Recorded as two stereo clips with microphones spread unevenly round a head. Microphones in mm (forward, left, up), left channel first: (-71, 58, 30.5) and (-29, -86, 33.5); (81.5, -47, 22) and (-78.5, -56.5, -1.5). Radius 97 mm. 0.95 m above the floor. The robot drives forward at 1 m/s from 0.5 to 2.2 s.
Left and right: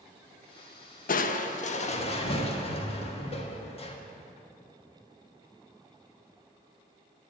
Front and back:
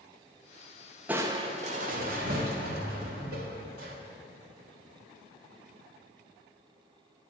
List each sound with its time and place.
1.1 s crushing: 105° left, 0.8 m; by 4.0 s 150° left, 1.5 m